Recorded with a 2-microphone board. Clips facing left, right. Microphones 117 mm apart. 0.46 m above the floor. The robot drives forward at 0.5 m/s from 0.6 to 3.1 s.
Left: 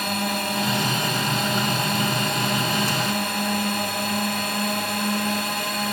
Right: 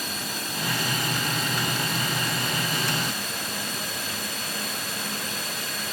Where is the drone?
65° left (ahead or behind); by 6.0 s 60° left (ahead or behind).